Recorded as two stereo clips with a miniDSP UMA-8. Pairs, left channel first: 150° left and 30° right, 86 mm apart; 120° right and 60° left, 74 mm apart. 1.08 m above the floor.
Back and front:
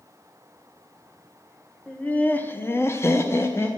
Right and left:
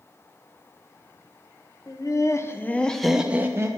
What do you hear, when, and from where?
1.9 s laughter: 140° right, 0.8 m; by 3.7 s 100° left, 0.6 m